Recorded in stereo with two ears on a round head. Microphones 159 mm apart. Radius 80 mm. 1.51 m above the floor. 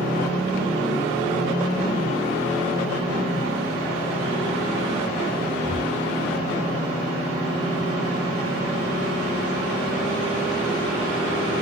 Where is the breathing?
25° left (ahead or behind), 1.8 m.